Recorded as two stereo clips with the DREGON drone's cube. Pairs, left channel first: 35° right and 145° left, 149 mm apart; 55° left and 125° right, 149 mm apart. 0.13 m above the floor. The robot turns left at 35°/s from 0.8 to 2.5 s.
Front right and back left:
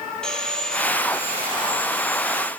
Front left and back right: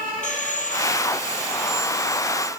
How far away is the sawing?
About 3 m.